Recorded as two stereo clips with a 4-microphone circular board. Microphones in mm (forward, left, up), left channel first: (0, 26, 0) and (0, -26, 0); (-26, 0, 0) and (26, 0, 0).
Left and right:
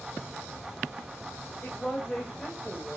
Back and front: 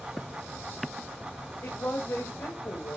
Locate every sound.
1.6 s a woman speaking: 150° left, 2.5 m; by 3.0 s 175° left, 1.8 m